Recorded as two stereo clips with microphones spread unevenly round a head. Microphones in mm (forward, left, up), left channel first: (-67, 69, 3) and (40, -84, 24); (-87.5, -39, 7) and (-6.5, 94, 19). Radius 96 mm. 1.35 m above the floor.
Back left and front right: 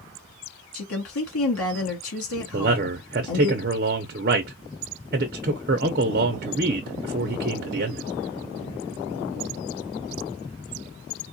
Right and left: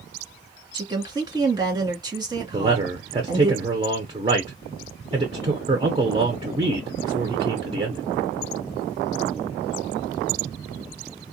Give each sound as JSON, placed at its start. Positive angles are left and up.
{"t": 0.7, "sound": "a woman speaking", "azimuth_deg": 125, "distance_m": 2.5}
{"t": 2.5, "sound": "a man speaking", "azimuth_deg": -5, "distance_m": 0.6}